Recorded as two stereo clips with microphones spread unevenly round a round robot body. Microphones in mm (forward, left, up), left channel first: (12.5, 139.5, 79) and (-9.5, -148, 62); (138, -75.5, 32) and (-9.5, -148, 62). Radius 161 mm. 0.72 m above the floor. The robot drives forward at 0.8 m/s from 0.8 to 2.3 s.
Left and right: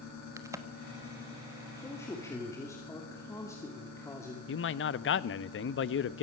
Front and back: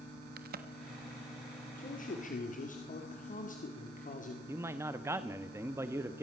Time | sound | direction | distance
0.4 | a crack | 170° right | 1.3 m
1.8 | a man speaking | 5° left | 3 m
4.5 | a man speaking | 125° left | 0.8 m